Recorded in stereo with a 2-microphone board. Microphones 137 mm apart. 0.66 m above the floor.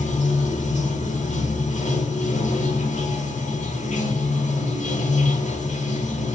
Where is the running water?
65° left (ahead or behind), 0.8 m.